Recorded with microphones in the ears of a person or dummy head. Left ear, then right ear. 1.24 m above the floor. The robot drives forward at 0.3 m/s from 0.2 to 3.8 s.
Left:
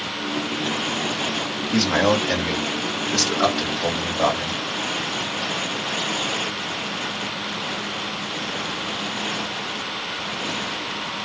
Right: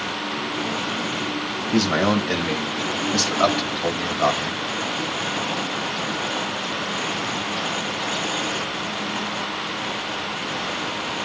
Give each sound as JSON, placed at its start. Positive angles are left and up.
{"t": 1.7, "sound": "a man speaking", "side_deg": 10, "distance_m": 1.4}